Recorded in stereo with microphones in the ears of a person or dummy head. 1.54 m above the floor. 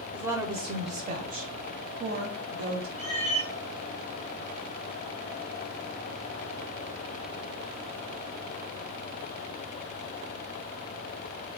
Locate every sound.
0.1 s a woman speaking: 5° right (ahead or behind), 0.7 m; by 2.9 s 70° right (ahead or behind), 1.6 m
3.0 s a cat meowing: 5° left (ahead or behind), 2.5 m